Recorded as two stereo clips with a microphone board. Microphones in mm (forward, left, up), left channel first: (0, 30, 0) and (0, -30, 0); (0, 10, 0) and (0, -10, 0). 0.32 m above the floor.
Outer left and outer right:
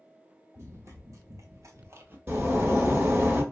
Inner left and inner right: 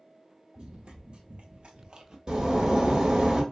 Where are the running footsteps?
50° right (ahead or behind), 0.8 m; by 2.2 s 35° right (ahead or behind), 0.5 m.